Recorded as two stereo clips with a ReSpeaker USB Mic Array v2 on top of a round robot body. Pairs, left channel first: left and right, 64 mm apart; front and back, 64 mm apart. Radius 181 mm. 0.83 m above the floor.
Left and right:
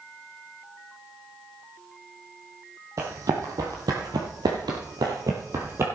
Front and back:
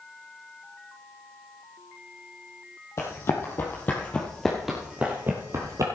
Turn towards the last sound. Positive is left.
turn(degrees=-140)